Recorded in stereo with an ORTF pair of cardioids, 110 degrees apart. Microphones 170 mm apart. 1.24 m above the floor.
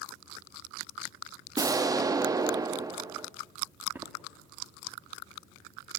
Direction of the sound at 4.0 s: 15° right.